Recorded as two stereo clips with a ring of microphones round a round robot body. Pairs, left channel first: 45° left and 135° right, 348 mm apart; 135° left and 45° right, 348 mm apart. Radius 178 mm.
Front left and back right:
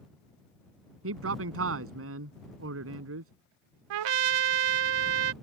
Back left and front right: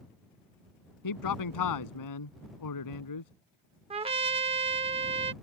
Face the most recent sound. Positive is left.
turn(degrees=-120)